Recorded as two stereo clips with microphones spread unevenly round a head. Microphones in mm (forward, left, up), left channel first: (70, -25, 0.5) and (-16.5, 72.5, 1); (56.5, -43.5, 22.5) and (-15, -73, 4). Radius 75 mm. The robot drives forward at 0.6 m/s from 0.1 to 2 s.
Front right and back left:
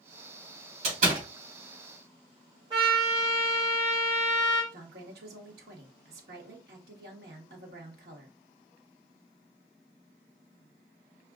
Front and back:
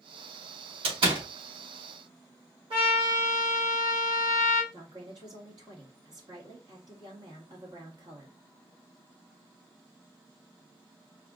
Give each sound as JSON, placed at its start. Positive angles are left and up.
{"t": 0.8, "sound": "a door slam", "azimuth_deg": 180, "distance_m": 3.0}
{"t": 2.7, "sound": "a trumpet", "azimuth_deg": -165, "distance_m": 2.5}
{"t": 4.7, "sound": "a woman speaking", "azimuth_deg": 155, "distance_m": 1.7}